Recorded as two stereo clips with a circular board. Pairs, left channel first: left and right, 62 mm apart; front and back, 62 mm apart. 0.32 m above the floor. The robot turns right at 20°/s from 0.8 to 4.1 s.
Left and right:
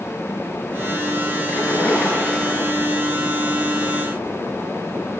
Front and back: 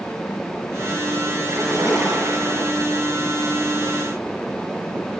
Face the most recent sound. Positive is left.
turn(degrees=-160)